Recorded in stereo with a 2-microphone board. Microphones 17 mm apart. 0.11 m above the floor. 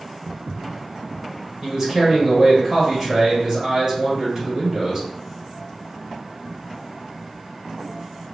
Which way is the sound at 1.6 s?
25° right (ahead or behind).